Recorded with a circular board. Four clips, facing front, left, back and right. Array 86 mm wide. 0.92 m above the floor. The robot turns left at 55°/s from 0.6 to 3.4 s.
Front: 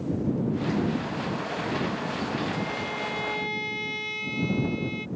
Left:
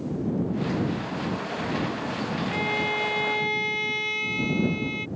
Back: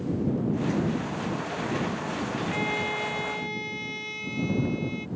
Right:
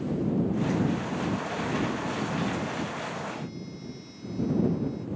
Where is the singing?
I don't hear singing.